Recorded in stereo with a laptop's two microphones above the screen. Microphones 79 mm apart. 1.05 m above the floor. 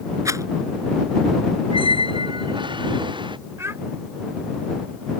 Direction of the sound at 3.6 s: 35° right (ahead or behind).